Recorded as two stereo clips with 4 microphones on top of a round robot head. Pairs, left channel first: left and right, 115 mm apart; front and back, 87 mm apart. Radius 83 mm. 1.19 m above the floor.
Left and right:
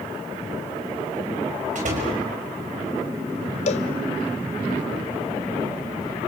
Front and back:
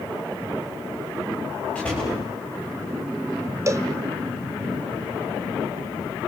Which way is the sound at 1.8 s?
80° right.